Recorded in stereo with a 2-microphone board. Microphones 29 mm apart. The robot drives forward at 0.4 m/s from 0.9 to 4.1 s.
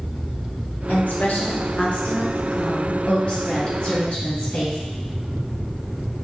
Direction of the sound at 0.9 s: 70° left (ahead or behind).